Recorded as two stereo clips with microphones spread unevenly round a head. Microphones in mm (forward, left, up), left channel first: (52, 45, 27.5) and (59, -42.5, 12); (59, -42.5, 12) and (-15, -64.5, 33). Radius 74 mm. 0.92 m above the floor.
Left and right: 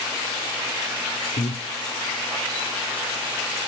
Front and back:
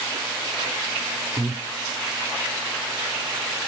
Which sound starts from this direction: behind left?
Breathing, at 1.4 s.